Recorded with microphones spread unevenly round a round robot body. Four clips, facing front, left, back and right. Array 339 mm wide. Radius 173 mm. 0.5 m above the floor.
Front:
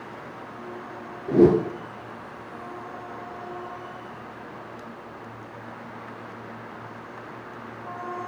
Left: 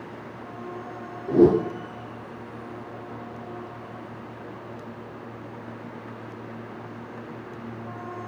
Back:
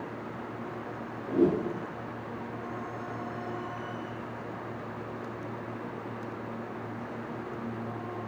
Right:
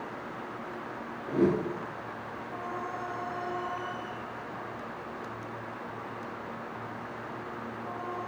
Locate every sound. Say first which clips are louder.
1.3 s a whoosh: left 9 dB, front 8 dB; 50° left, 0.9 m